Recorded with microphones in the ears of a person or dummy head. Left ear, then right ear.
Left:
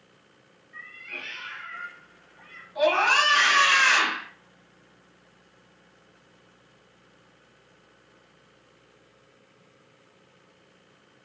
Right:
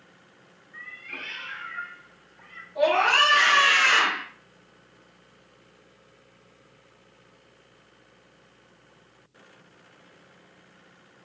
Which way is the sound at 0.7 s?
25° left (ahead or behind).